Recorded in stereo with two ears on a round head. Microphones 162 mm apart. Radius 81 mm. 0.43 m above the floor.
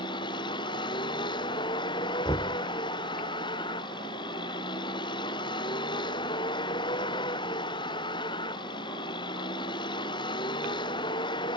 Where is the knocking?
20° left (ahead or behind).